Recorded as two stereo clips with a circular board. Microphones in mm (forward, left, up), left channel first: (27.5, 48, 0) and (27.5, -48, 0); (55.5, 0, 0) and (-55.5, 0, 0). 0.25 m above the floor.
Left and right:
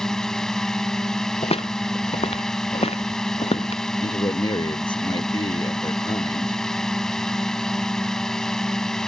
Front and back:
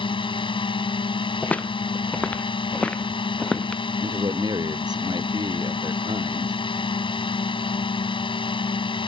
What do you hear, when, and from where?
0.0 s a drone: 5° left
1.4 s footsteps: 80° left
4.0 s a man speaking: 130° left